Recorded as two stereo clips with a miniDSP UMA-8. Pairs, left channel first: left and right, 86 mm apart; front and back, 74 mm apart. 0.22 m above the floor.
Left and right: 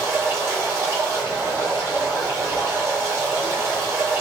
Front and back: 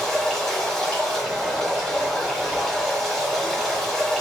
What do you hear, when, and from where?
0.0 s running water: 80° right, 1.3 m